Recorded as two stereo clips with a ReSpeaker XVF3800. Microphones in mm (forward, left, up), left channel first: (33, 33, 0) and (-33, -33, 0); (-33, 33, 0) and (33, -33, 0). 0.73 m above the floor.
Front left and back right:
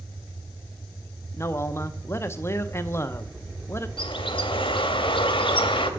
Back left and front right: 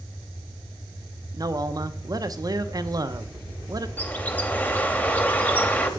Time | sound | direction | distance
1.3 | a man speaking | 10° right | 0.7 m
4.0 | a bird | 65° left | 1.1 m